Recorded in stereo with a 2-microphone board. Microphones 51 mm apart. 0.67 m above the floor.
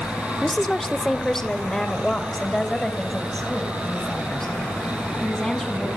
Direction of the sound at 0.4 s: 5° left (ahead or behind).